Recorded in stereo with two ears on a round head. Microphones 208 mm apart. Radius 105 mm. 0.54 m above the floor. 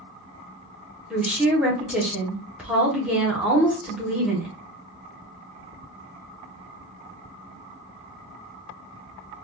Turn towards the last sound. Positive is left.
turn(degrees=-5)  # may be behind; listen again after turning